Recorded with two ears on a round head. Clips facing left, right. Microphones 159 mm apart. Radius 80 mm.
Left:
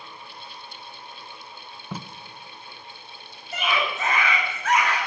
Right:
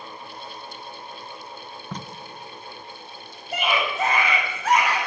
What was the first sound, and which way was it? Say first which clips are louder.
Tape being pulled: even; 5° left (ahead or behind).